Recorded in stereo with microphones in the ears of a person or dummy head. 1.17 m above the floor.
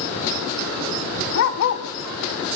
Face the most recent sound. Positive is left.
turn(degrees=40)  # may be behind; listen again after turning